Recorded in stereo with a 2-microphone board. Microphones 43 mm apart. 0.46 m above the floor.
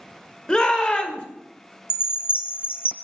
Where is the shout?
25° left (ahead or behind), 1.3 m.